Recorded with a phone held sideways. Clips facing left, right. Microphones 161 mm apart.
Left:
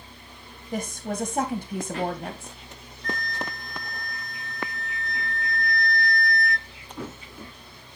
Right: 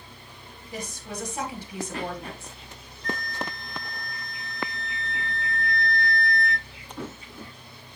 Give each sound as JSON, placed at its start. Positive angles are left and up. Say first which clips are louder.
{"t": 0.7, "sound": "a woman speaking", "louder": "left 6 dB", "side_deg": 50, "distance_m": 1.3}
{"t": 3.0, "sound": "a flute", "louder": "even", "side_deg": -30, "distance_m": 6.0}